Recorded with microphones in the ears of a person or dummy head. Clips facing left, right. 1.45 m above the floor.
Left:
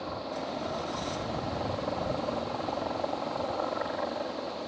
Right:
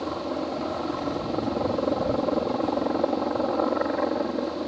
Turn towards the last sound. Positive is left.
turn(degrees=-60)  # may be behind; listen again after turning